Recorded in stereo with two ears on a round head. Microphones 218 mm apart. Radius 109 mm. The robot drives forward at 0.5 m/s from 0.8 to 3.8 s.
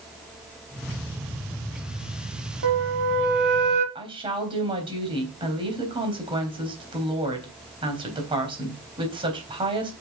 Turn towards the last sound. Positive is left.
turn(degrees=-25)  # may be behind; listen again after turning